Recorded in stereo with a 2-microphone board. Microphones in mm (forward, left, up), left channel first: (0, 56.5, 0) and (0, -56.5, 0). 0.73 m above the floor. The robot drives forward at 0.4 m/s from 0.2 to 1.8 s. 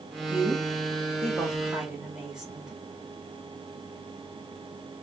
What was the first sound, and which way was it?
A woman speaking, 10° right (ahead or behind).